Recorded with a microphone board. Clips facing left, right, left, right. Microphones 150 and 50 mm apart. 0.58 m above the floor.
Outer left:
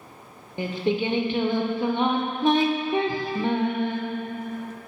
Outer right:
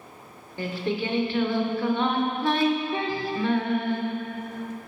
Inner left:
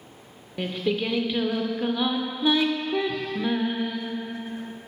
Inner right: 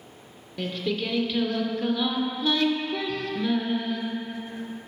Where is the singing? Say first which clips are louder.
Outer left 3 dB, inner left 2 dB; 20° left (ahead or behind), 0.5 m.